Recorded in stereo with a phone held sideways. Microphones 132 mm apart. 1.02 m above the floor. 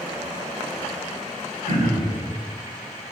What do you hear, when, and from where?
1.6 s throat clearing: 85° left, 4.5 m